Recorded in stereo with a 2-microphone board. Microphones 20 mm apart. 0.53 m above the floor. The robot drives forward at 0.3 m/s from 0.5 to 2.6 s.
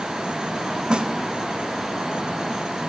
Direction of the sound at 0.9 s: 60° right (ahead or behind).